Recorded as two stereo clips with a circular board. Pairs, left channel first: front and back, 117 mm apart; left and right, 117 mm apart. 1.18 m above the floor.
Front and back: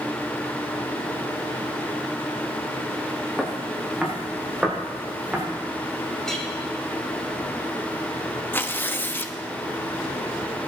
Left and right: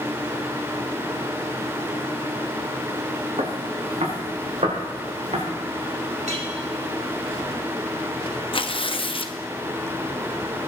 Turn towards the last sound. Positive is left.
turn(degrees=70)